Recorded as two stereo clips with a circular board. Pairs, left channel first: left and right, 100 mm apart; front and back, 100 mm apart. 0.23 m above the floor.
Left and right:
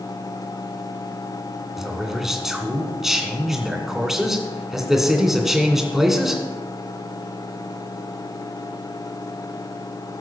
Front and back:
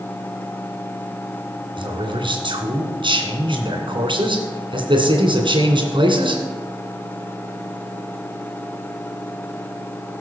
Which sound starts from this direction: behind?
A man speaking, at 1.8 s.